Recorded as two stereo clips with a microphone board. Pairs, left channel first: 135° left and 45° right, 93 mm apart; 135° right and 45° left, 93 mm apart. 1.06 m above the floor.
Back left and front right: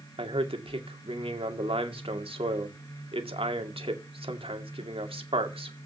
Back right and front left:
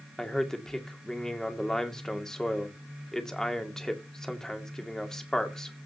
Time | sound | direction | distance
0.2 | a man speaking | 50° right | 2 m